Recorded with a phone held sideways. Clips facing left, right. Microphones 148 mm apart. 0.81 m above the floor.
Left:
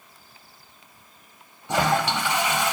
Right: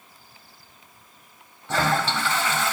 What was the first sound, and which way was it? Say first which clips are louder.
A toilet flushing: left 1 dB; 15° left (ahead or behind).